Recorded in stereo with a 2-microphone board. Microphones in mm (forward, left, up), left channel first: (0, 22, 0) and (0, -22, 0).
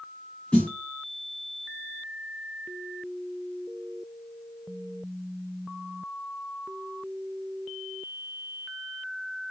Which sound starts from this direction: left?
A snare drum, at 0.5 s.